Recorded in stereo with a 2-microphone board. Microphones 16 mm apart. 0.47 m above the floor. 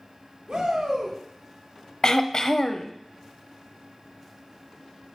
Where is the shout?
65° right (ahead or behind), 5 m.